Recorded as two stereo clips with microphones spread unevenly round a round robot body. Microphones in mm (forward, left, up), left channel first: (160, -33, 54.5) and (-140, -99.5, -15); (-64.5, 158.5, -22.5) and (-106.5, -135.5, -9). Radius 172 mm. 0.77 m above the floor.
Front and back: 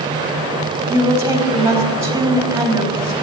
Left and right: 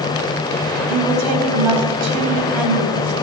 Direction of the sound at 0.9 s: 90° right.